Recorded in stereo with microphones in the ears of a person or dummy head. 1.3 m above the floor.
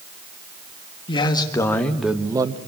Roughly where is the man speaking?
Left.